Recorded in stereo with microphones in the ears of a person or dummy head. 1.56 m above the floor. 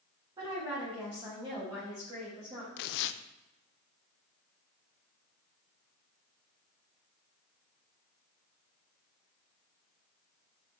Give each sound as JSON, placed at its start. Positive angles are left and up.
{"t": 0.4, "sound": "a woman speaking", "side_deg": -25, "distance_m": 3.0}
{"t": 2.8, "sound": "tearing paper", "side_deg": 60, "distance_m": 0.5}